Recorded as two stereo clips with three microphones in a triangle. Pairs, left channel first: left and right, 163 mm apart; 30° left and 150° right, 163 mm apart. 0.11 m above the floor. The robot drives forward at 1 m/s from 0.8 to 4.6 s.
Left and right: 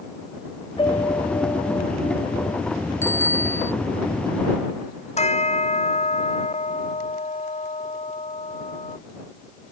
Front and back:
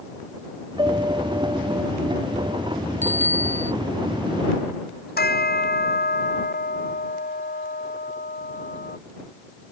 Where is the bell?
45° left.